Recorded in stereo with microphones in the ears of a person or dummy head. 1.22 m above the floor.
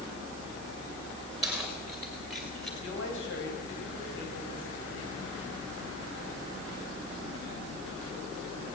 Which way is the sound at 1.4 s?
Centre (ahead or behind).